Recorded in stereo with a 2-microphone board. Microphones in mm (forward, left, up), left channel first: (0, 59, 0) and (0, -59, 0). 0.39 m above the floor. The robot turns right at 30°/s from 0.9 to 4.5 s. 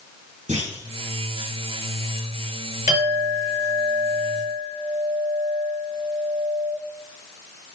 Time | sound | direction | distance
0.5 | a clunk | 85° right | 5.5 m
2.9 | a clink | 30° right | 5 m